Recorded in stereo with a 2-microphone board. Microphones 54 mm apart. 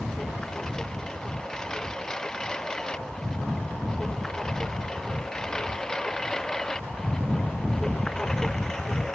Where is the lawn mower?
15° left (ahead or behind); by 9.2 s 10° left (ahead or behind).